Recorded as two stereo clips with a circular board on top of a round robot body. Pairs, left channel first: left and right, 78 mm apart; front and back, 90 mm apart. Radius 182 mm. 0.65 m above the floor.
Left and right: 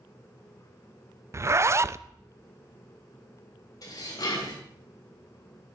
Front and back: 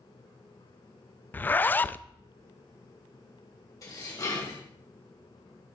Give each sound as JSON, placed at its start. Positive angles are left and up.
{"t": 1.3, "sound": "a zipper", "azimuth_deg": -60, "distance_m": 0.5}
{"t": 3.8, "sound": "dishes clattering", "azimuth_deg": 50, "distance_m": 3.0}